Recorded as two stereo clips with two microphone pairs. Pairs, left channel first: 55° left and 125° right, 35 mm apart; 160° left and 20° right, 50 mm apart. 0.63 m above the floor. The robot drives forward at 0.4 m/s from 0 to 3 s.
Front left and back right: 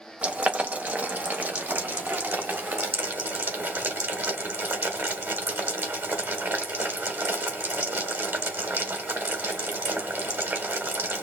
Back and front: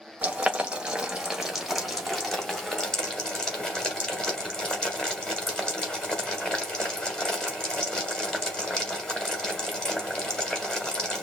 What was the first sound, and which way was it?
Boiling, 80° right.